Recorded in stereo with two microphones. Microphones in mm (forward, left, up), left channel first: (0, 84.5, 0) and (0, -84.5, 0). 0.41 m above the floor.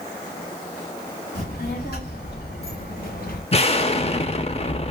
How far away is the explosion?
About 0.5 m.